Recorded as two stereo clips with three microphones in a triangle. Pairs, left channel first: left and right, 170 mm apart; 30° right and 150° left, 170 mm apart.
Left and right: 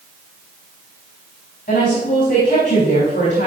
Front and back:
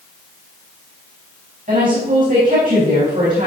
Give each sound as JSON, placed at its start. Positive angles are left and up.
{"t": 1.7, "sound": "a woman speaking", "azimuth_deg": 120, "distance_m": 4.0}